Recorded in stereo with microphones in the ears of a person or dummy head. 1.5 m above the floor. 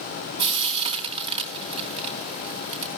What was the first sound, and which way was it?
Frying, 30° right (ahead or behind).